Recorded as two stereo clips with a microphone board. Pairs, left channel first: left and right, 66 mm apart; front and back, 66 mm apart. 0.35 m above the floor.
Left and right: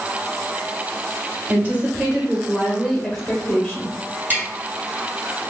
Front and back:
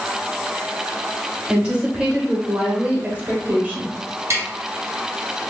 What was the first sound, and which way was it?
A woman speaking, 120° right.